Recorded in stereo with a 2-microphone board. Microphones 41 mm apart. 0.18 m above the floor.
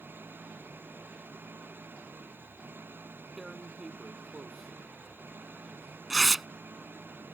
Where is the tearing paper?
5° right (ahead or behind).